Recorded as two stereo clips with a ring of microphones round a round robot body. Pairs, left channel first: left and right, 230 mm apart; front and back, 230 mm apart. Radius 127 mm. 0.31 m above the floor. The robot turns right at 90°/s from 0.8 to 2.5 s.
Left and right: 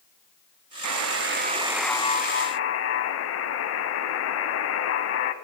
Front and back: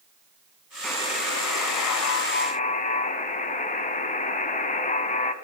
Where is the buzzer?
90° right, 0.7 m; by 5.3 s 60° left, 0.7 m.